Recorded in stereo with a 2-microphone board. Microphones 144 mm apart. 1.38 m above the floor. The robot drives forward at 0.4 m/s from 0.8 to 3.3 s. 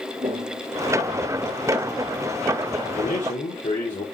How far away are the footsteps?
About 1.9 m.